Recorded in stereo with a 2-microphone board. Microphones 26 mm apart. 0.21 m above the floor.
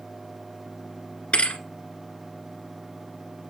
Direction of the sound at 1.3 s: 40° left (ahead or behind).